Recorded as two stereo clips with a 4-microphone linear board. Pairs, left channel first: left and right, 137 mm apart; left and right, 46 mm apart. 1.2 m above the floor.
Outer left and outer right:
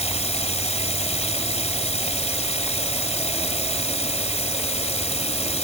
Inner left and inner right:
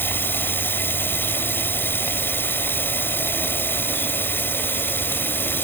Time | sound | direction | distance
0.0 | running water | 55° left (ahead or behind) | ?